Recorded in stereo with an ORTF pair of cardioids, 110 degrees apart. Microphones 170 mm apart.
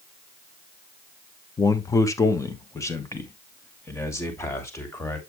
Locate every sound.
1.6 s a man speaking: 20° left, 1.0 m; by 5.2 s 15° left, 3.5 m